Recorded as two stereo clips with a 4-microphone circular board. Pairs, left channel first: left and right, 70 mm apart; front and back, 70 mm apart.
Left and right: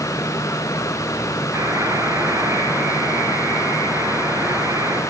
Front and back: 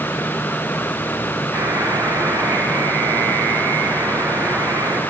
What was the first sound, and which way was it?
A buzzer, 145° right.